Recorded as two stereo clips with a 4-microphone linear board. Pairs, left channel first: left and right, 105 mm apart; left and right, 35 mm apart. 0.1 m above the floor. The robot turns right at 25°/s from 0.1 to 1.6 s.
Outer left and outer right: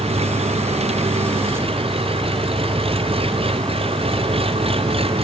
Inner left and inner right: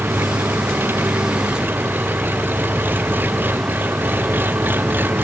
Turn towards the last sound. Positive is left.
turn(degrees=-65)